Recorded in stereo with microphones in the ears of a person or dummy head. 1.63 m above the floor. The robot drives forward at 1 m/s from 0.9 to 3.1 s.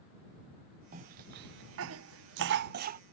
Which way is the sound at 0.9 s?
40° right (ahead or behind).